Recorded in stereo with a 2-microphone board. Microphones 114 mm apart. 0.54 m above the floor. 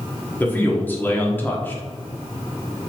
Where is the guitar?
No guitar in this recording.